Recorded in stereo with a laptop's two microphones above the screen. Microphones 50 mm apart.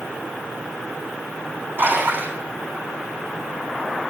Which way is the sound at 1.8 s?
45° right (ahead or behind).